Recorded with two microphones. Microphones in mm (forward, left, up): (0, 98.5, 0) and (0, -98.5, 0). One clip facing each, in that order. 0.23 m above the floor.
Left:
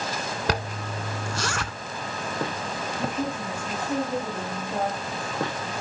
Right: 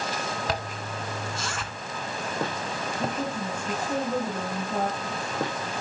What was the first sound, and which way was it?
A zipper, 75° left (ahead or behind).